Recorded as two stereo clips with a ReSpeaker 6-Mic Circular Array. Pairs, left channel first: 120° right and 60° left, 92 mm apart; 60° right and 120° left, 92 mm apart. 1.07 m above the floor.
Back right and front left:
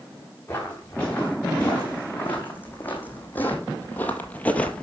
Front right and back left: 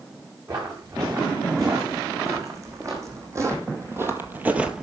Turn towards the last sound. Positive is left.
turn(degrees=-165)